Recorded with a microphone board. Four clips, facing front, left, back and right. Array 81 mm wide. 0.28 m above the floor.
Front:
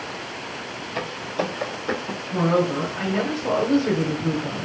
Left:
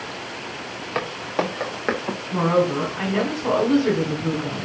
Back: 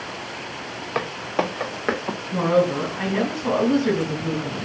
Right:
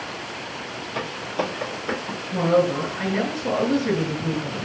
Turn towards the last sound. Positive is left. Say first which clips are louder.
# even, back 1 dB
turn(degrees=95)